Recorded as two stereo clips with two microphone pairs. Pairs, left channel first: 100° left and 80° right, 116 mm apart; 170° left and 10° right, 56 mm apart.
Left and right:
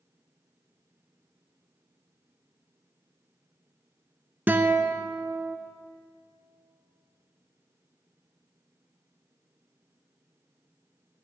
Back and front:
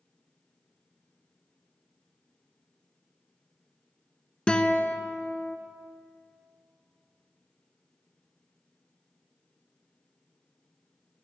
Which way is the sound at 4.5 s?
135° right.